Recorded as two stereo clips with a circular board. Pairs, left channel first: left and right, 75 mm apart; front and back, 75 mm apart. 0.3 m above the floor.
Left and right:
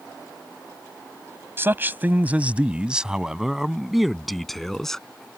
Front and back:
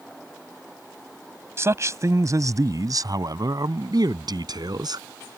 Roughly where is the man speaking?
Behind right.